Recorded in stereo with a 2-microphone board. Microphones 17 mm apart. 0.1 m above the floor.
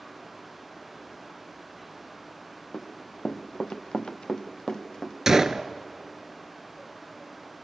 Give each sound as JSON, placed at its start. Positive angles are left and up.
{"t": 2.7, "sound": "running footsteps", "side_deg": 50, "distance_m": 1.3}
{"t": 5.3, "sound": "a gunshot", "side_deg": -30, "distance_m": 0.6}